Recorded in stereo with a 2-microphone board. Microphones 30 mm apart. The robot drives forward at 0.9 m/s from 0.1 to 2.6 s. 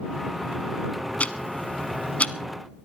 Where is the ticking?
50° left (ahead or behind), 1.0 m.